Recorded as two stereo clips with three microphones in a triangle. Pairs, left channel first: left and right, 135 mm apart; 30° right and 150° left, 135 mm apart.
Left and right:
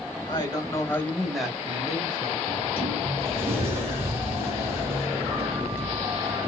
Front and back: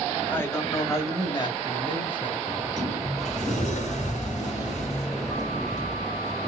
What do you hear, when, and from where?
0.3 s a man speaking: 40° left, 1.5 m; by 2.4 s 60° right, 1.2 m
2.5 s a sliding door: 20° right, 1.6 m